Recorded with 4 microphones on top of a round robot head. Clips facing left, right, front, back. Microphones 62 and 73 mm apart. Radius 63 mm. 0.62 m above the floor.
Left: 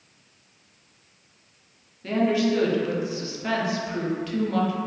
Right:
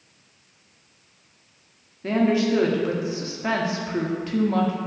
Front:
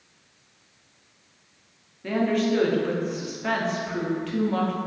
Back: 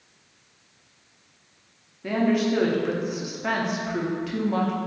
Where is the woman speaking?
105° right, 0.7 m.